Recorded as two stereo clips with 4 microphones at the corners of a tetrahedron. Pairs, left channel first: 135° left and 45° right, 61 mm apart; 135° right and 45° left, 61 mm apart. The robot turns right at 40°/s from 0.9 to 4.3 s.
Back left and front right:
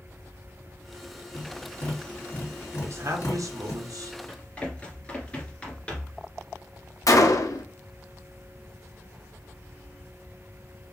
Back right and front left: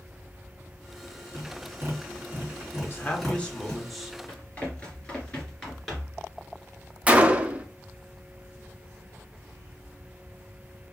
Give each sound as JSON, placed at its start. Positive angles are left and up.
{"t": 1.3, "sound": "tapping", "azimuth_deg": 55, "distance_m": 2.5}
{"t": 2.7, "sound": "a man speaking", "azimuth_deg": -90, "distance_m": 1.0}
{"t": 4.3, "sound": "running footsteps", "azimuth_deg": 180, "distance_m": 2.0}
{"t": 7.1, "sound": "a gunshot", "azimuth_deg": 110, "distance_m": 0.5}